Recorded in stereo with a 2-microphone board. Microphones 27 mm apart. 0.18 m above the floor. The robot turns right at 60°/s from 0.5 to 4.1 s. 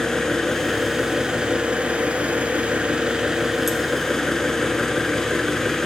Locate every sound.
0.0 s an engine running: 165° left, 1.1 m; by 5.9 s 20° left, 1.1 m